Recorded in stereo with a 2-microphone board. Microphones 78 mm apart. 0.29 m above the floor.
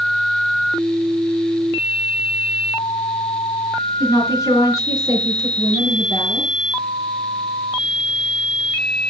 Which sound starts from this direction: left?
A woman speaking, at 4.0 s.